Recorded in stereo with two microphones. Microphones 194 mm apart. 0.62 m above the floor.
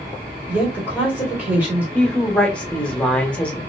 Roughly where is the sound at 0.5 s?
Centre.